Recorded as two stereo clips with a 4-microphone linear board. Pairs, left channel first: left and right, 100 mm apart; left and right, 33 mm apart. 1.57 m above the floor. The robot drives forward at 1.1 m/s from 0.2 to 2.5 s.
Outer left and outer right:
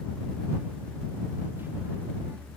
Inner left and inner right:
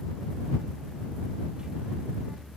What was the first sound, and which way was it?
Only background noise.